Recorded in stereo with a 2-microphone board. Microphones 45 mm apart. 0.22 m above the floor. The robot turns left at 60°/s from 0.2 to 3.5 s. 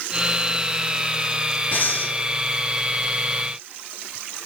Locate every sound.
1.7 s breathing: 45° left (ahead or behind), 1.6 m